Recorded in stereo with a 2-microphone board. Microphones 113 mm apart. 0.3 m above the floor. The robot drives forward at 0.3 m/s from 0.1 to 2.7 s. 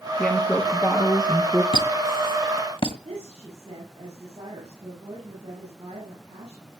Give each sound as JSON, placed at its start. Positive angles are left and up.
{"t": 0.2, "sound": "a woman speaking", "side_deg": 10, "distance_m": 6.0}
{"t": 1.7, "sound": "a squeak", "side_deg": 50, "distance_m": 1.7}
{"t": 3.0, "sound": "a woman speaking", "side_deg": -55, "distance_m": 8.5}